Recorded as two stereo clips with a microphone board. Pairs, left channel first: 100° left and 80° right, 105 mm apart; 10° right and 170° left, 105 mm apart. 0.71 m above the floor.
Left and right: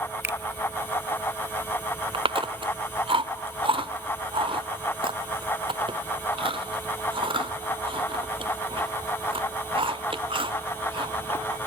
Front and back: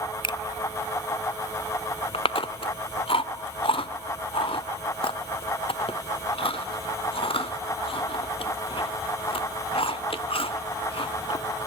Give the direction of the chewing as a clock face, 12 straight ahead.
1 o'clock.